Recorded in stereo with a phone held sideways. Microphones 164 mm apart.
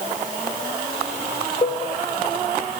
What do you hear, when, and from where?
1.6 s a cowbell: 35° left (ahead or behind), 0.7 m